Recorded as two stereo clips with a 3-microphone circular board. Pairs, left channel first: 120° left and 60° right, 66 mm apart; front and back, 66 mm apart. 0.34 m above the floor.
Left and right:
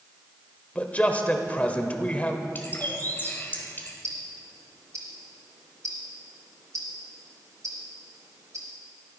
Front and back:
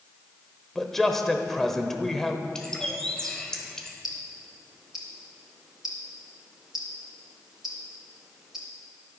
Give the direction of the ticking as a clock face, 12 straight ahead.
3 o'clock.